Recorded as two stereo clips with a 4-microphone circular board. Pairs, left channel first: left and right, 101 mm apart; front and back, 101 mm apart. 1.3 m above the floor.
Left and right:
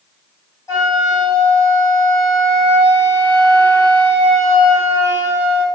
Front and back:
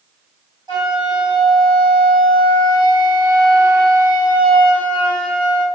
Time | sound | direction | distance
0.7 | a flute | 140° left | 1.5 m